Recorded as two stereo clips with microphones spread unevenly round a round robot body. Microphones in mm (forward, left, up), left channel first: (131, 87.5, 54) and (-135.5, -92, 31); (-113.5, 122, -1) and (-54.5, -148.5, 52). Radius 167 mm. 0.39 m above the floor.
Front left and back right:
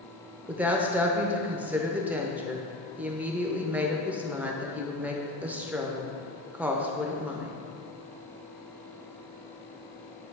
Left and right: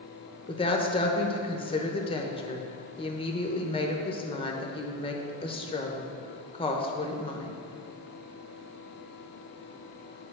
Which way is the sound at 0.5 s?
140° left.